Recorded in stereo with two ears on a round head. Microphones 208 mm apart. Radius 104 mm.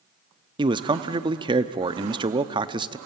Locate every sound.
0.6 s a man speaking: 20° right (ahead or behind), 0.6 m